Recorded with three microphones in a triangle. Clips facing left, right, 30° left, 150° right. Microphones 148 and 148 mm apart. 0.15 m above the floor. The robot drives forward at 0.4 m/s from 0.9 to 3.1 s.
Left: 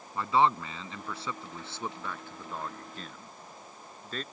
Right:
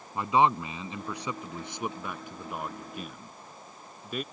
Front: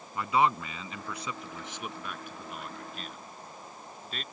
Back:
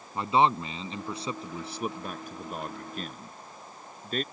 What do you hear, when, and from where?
0.1 s a man speaking: 145° right; by 4.2 s 165° right